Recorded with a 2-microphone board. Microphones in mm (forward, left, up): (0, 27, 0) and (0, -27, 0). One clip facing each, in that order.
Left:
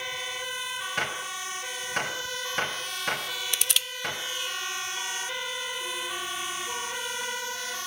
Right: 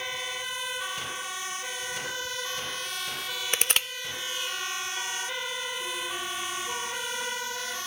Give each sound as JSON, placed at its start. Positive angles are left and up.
{"t": 1.0, "sound": "a gunshot", "side_deg": 60, "distance_m": 3.0}
{"t": 3.5, "sound": "crushing", "side_deg": -40, "distance_m": 0.6}